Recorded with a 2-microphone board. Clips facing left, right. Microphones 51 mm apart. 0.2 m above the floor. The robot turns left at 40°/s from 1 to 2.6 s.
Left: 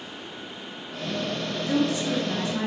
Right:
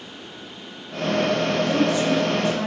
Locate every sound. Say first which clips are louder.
1.7 s a woman speaking: right 1 dB; 20° left (ahead or behind), 1.4 m